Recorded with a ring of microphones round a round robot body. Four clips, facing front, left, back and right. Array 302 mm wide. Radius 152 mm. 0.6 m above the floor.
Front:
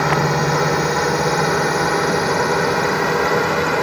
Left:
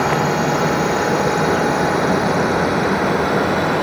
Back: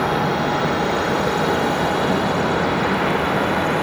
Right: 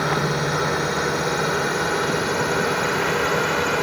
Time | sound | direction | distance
0.0 | a drone | 5° left | ?